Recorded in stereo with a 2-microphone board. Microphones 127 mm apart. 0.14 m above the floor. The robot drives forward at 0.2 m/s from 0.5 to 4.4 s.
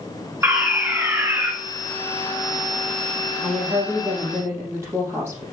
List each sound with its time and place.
0.4 s a fire alarm: 20° right (ahead or behind), 2 m
3.4 s a woman speaking: 20° right (ahead or behind), 4 m